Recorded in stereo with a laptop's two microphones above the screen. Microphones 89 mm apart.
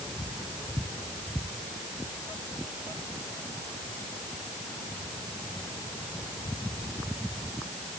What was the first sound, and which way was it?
Only background noise.